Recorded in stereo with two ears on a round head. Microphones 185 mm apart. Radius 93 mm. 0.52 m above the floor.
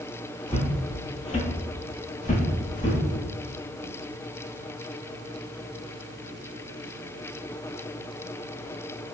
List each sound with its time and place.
0.5 s footsteps: 10° left (ahead or behind), 0.7 m; by 3.0 s 35° left (ahead or behind), 1.2 m